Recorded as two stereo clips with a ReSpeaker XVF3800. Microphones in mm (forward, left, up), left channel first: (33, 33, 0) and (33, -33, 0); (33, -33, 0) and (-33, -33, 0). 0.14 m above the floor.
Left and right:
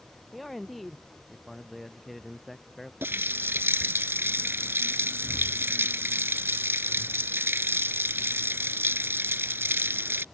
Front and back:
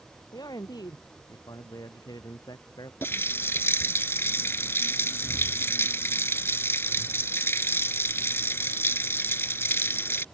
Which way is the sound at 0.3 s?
Straight ahead.